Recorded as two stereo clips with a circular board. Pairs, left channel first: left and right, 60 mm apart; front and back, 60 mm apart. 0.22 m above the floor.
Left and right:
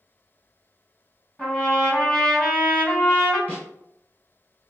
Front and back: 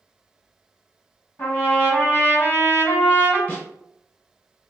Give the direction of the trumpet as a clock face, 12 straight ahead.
11 o'clock.